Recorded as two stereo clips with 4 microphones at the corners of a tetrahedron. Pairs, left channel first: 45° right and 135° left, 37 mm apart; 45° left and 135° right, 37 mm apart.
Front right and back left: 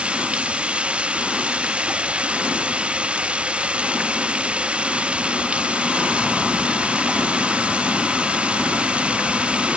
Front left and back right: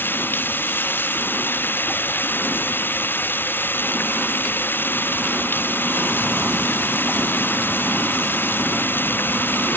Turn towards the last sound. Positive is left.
turn(degrees=75)